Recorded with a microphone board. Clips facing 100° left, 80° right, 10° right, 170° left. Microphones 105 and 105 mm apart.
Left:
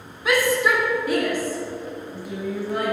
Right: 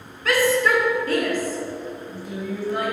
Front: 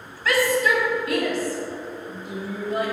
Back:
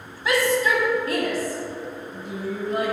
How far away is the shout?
About 1.0 m.